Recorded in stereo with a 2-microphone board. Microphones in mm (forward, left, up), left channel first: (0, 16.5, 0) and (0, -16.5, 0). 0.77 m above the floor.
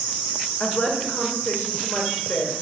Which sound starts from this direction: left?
A woman speaking, at 0.6 s.